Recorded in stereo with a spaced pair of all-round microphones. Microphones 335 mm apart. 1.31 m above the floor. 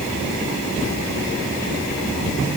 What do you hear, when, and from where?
Only background noise.